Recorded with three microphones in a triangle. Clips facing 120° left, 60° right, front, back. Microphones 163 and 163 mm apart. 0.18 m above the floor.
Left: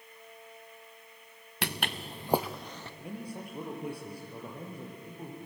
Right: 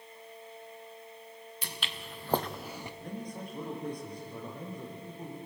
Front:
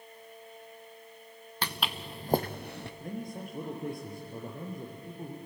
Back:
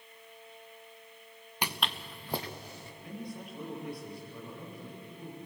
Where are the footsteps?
105° left, 0.9 m; by 2.9 s 15° left, 1.5 m.